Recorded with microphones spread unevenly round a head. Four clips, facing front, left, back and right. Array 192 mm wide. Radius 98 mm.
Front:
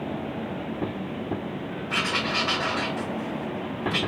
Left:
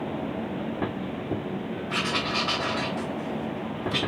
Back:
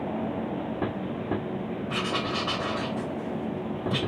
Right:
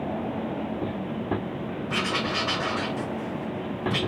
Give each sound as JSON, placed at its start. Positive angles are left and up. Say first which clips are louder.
{"t": 1.9, "sound": "writing", "louder": "right 1 dB, front 2 dB", "azimuth_deg": -140, "distance_m": 2.5}